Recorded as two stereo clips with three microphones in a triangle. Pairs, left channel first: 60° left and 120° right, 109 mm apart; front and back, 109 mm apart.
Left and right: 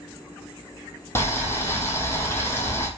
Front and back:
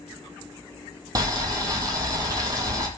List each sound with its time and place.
1.1 s boiling: 125° left, 0.6 m